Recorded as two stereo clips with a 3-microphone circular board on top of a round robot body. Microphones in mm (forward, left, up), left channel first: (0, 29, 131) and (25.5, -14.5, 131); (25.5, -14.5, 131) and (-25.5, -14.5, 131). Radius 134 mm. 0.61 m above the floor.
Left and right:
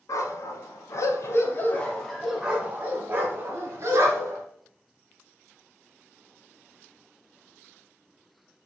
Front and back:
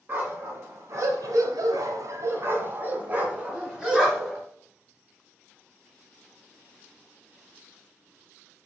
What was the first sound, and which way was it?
A dog barking, 125° left.